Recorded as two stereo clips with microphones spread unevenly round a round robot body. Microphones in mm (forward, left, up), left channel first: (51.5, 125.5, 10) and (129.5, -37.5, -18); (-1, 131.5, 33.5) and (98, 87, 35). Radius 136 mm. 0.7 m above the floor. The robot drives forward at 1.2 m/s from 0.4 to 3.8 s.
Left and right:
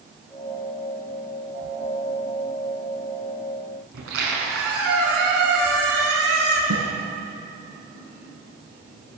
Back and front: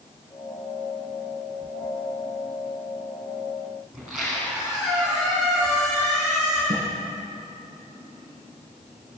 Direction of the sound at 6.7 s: 75° right.